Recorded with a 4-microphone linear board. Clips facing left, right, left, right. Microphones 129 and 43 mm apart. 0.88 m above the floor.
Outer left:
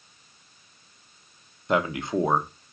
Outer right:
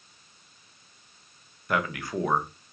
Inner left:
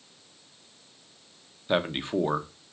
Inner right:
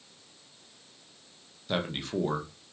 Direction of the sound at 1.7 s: 25° left (ahead or behind).